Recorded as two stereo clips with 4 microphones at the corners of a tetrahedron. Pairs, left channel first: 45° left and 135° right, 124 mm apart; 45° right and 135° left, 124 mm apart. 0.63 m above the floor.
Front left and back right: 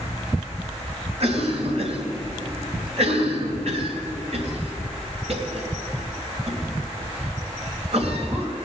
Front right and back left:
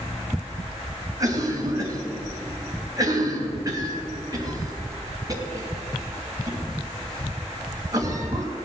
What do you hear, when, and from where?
1.2 s a cough: 165° right, 3 m